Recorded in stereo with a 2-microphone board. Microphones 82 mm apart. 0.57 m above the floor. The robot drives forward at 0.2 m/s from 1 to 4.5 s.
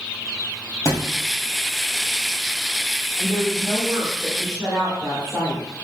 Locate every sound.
0.8 s a thud: 45° left (ahead or behind), 1.6 m
3.2 s a woman speaking: 25° right (ahead or behind), 1.6 m